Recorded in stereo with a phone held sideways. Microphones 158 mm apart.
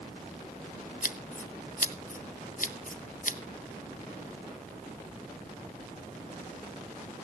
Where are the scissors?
55° left (ahead or behind), 0.7 m.